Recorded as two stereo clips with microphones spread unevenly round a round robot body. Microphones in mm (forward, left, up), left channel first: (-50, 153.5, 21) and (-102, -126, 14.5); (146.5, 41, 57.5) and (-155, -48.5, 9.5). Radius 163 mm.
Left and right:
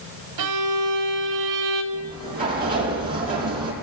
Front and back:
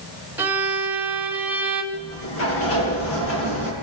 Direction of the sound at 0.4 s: 80° right.